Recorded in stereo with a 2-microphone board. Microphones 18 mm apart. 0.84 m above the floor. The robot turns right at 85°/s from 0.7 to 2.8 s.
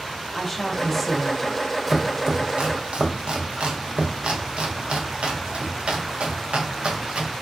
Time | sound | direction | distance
0.3 | a woman speaking | 10° left (ahead or behind) | 0.5 m
1.9 | chopping | 10° right (ahead or behind) | 0.6 m